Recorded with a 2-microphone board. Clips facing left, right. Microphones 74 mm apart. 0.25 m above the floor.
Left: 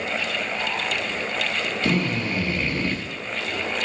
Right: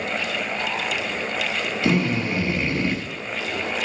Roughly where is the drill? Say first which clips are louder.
Right 3 dB; centre.